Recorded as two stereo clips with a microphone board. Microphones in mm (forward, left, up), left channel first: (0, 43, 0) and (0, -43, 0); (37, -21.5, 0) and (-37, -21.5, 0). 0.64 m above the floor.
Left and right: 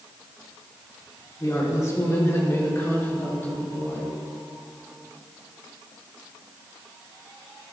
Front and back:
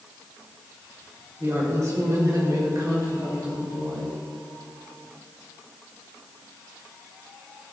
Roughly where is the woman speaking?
Behind left.